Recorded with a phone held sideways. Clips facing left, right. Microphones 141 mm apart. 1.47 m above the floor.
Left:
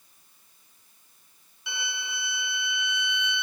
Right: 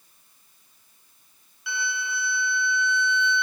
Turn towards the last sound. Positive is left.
turn(degrees=20)  # may be behind; listen again after turning